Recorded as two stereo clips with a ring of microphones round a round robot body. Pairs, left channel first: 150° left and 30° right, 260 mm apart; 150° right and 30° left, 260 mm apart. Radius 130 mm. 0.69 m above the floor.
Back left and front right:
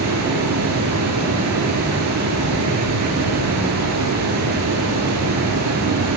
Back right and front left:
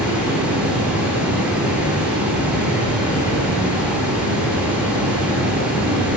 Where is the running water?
55° right, 1.5 m.